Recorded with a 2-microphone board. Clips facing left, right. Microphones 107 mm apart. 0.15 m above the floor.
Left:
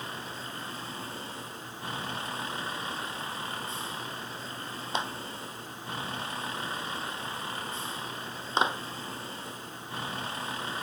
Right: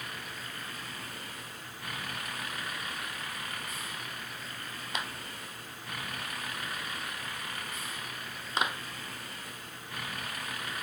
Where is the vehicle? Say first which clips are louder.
Left 4 dB; 30° left (ahead or behind).